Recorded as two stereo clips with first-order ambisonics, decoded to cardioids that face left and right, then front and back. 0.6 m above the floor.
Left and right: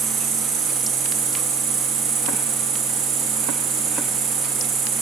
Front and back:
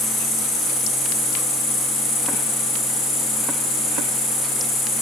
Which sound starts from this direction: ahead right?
An insect, at 0.0 s.